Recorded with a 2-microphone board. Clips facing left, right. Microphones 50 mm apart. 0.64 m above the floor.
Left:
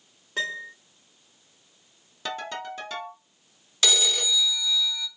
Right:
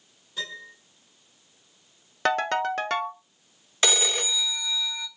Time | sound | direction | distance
0.4 | a piano | 65° left (ahead or behind) | 1.3 m
2.2 | a ringtone | 60° right (ahead or behind) | 0.6 m
3.8 | a phone ringing | 35° right (ahead or behind) | 0.7 m